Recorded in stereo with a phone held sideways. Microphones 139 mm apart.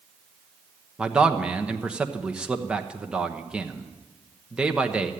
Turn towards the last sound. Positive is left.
turn(degrees=-5)  # may be behind; listen again after turning